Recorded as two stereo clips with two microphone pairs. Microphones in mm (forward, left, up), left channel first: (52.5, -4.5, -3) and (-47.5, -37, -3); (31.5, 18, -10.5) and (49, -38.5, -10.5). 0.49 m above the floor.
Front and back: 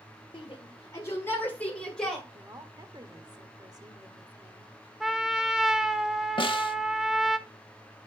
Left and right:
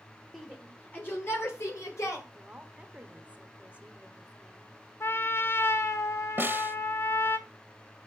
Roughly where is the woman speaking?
Behind right.